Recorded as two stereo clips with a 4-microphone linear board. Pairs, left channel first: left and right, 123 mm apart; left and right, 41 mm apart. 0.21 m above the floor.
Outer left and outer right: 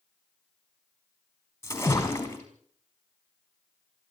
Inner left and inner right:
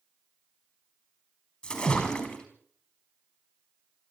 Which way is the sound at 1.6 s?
20° left (ahead or behind).